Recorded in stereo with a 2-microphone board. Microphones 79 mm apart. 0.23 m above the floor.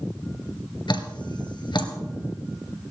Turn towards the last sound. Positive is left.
turn(degrees=75)  # may be behind; listen again after turning